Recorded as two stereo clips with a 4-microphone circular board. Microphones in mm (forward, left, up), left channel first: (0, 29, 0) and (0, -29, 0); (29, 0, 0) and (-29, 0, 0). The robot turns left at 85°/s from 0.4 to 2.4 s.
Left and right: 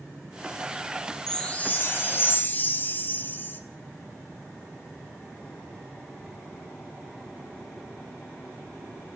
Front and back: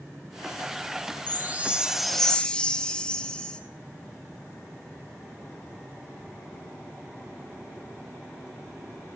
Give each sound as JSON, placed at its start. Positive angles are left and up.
{"t": 1.3, "sound": "a chime", "azimuth_deg": 160, "distance_m": 1.0}